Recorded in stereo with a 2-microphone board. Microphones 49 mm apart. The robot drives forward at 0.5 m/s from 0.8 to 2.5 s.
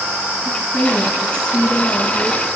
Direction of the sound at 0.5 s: 20° left (ahead or behind).